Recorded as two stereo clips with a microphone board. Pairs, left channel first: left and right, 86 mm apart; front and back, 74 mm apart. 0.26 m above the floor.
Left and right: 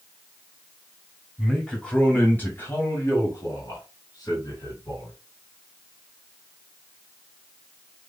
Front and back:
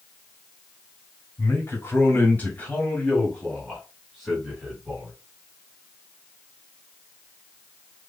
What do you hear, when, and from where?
1.4 s a man speaking: 10° left, 1.8 m; by 5.1 s 95° left, 2.5 m